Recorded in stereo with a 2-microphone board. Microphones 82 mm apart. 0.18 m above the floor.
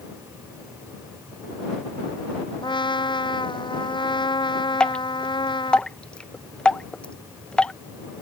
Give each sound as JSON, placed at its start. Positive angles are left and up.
{"t": 2.6, "sound": "a trumpet", "side_deg": 70}
{"t": 4.8, "sound": "dripping", "side_deg": 10}